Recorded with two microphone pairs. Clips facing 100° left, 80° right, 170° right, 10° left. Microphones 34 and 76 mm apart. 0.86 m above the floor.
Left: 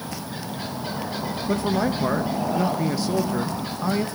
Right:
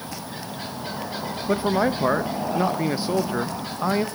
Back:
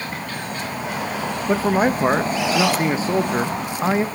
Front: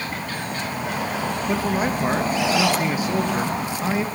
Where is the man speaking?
135° right, 0.5 m.